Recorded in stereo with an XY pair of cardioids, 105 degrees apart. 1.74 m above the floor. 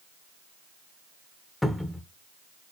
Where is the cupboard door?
10° left, 1.4 m.